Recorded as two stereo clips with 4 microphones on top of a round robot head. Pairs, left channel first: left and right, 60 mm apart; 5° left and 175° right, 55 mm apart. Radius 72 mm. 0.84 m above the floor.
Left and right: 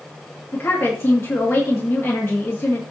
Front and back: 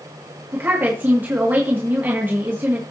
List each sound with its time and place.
0.5 s a woman speaking: 135° left, 1.8 m